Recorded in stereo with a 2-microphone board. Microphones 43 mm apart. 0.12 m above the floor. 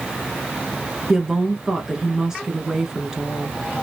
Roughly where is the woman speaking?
Centre.